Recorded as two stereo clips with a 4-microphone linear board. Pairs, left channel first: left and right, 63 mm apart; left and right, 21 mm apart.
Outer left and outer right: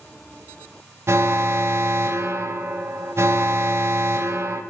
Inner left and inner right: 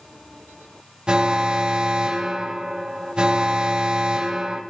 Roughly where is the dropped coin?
I don't hear a dropped coin.